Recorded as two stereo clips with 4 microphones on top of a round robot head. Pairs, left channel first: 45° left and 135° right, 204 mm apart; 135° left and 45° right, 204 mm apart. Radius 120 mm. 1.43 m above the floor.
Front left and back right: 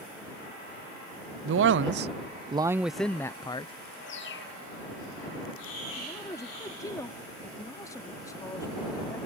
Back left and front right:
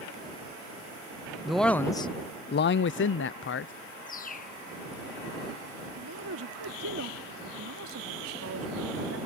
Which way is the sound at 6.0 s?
30° right.